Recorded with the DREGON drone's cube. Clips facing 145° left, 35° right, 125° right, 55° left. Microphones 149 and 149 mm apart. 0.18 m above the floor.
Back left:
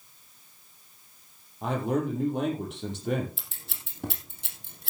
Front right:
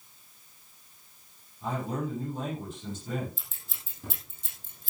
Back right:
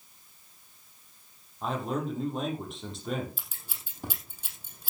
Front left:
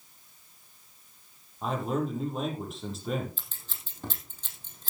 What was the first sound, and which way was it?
A man speaking, 145° left.